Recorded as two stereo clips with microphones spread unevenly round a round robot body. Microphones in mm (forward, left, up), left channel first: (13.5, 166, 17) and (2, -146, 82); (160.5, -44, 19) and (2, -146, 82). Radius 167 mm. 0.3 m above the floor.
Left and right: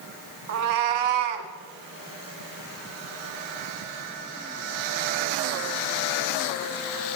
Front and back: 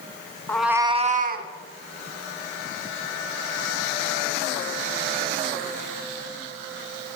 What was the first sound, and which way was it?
A cat meowing, 45° right.